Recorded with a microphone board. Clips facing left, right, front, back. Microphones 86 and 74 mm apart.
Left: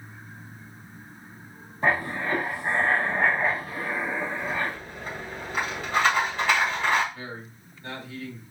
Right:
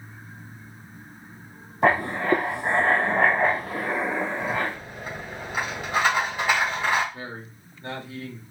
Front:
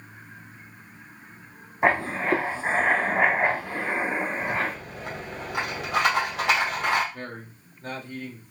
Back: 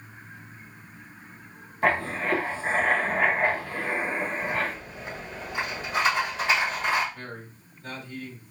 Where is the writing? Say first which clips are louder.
Right 4 dB, front 2 dB; 70° right, 1.0 m.